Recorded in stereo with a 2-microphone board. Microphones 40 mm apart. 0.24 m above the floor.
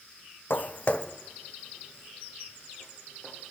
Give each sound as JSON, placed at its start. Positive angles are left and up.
{"t": 0.5, "sound": "footsteps", "side_deg": 65, "distance_m": 0.7}